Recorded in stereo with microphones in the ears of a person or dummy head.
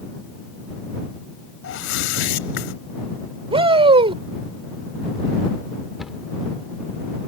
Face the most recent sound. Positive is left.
turn(degrees=0)  # may be behind; listen again after turning